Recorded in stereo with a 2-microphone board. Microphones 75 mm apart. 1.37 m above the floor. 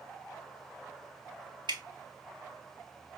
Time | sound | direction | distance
1.7 | dripping | 80° right | 0.7 m